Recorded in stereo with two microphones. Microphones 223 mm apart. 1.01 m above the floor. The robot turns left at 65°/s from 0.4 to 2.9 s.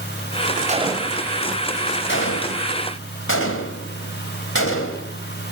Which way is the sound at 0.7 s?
35° right (ahead or behind).